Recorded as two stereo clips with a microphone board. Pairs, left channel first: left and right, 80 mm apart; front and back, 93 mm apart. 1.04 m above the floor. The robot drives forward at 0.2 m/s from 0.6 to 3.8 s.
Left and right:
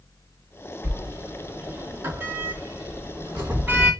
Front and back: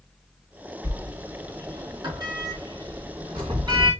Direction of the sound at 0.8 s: 140° right.